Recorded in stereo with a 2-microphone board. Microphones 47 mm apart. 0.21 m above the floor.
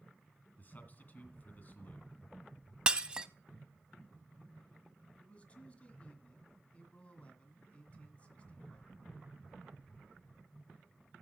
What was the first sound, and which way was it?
A man speaking, 40° left (ahead or behind).